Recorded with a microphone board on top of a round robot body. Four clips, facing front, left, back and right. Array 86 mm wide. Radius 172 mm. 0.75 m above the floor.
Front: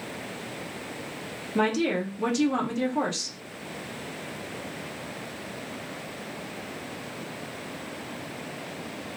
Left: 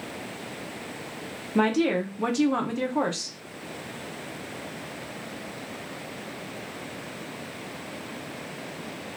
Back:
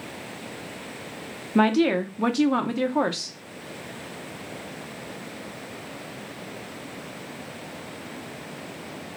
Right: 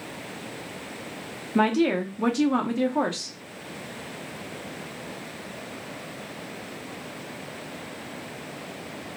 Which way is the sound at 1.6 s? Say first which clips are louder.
Right 1 dB, back 5 dB; 170° right.